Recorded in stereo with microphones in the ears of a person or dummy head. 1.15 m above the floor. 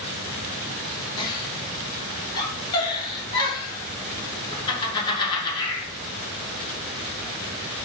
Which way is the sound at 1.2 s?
25° left (ahead or behind).